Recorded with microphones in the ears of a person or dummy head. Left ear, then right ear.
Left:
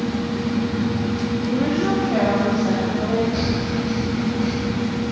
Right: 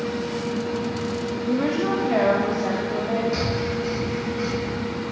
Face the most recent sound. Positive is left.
turn(degrees=-60)  # may be behind; listen again after turning